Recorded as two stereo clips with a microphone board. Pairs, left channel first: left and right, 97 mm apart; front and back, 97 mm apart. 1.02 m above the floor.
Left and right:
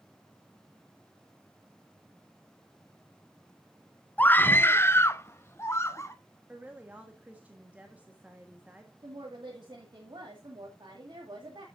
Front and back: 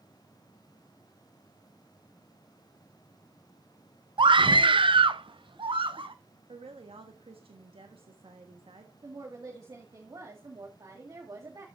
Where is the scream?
160° left, 0.5 m; by 6.2 s 150° left, 1.5 m.